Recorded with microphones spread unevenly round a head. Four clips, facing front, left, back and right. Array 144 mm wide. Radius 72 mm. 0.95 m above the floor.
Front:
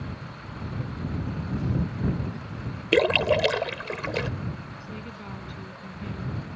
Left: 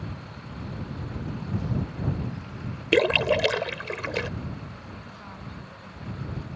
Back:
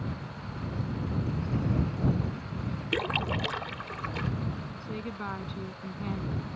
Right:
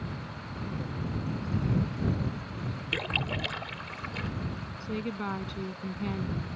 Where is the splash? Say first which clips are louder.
Left 15 dB, front 11 dB; 55° left.